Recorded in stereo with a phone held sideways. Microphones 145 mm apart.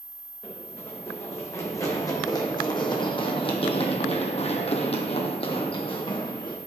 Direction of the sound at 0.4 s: 15° left (ahead or behind).